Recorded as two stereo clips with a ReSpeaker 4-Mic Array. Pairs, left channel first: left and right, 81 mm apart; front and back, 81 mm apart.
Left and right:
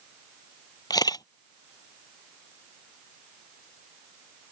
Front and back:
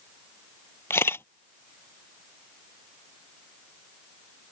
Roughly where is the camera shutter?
Ahead left.